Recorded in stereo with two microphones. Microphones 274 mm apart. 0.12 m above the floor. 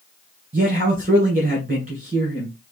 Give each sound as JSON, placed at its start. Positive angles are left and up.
{"t": 0.5, "sound": "a man speaking", "side_deg": -30, "distance_m": 1.6}